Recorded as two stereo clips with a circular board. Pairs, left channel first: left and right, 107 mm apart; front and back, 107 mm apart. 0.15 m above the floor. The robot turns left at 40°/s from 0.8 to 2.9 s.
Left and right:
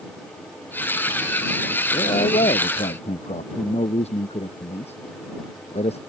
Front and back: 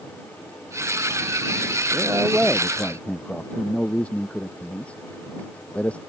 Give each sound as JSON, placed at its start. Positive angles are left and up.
{"t": 1.9, "sound": "a man speaking", "azimuth_deg": 120}